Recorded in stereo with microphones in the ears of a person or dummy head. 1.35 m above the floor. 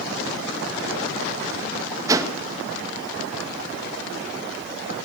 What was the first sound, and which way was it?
A whoosh, 15° right (ahead or behind).